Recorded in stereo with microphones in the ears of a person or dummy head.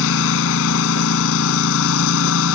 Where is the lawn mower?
75° left (ahead or behind).